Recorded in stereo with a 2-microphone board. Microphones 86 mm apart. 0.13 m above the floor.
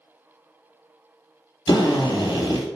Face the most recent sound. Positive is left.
turn(degrees=60)  # may be behind; listen again after turning